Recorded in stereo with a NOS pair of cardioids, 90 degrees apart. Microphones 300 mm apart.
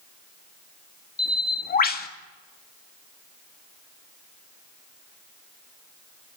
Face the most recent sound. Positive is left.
turn(degrees=30)